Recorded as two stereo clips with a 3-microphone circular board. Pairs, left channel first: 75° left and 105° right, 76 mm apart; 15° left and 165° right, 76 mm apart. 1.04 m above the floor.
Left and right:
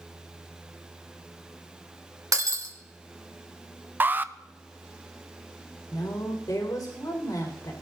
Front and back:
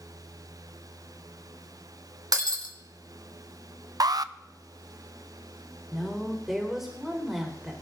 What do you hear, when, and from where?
2.3 s breaking glass: 145° right, 2.5 m
4.0 s an alarm: 165° right, 0.5 m
5.9 s a woman speaking: 110° left, 4.5 m